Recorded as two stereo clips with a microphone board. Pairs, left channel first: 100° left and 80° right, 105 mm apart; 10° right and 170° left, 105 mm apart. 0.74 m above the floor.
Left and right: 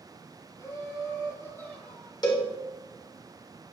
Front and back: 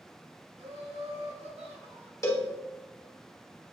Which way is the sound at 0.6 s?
155° left.